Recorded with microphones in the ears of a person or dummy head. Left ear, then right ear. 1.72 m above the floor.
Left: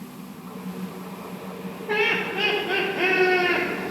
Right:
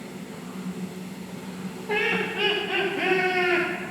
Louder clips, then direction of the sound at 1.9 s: Left 2 dB; 25° left (ahead or behind).